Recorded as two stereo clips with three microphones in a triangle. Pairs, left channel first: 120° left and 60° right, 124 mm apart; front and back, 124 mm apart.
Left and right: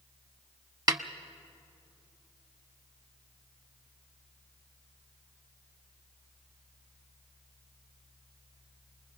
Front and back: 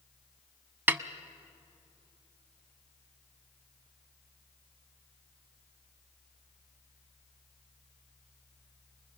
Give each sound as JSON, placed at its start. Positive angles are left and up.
{"t": 0.9, "sound": "a snare drum", "azimuth_deg": -110, "distance_m": 0.6}